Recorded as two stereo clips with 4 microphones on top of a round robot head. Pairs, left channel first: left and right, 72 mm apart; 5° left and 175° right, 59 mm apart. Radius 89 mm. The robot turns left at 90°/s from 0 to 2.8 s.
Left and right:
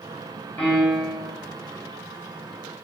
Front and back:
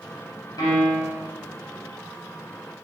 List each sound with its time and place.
0.6 s a piano: 20° left, 1.3 m; by 1.3 s 40° right, 1.3 m